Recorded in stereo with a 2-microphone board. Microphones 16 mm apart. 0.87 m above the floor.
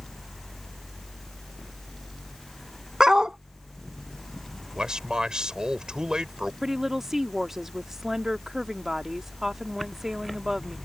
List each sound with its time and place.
3.0 s a dog barking: 45° right (ahead or behind)
4.8 s a man speaking: 55° right (ahead or behind)
6.6 s a woman speaking: 20° right (ahead or behind)